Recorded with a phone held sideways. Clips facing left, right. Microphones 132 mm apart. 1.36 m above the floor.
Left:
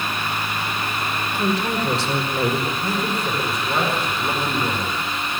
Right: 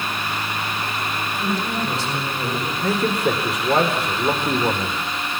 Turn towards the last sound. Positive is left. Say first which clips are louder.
# right 4 dB
turn(degrees=-85)